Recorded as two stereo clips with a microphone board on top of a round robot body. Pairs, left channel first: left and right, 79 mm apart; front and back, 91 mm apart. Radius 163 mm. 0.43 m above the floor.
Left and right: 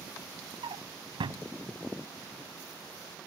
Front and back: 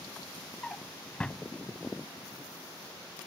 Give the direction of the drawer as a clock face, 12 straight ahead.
3 o'clock.